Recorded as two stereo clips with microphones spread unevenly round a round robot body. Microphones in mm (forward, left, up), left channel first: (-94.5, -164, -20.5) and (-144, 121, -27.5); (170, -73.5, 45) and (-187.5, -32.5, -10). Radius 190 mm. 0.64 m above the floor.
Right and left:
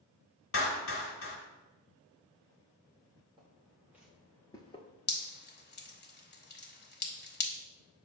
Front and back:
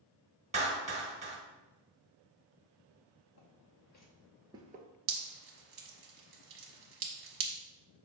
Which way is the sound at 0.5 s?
120° right.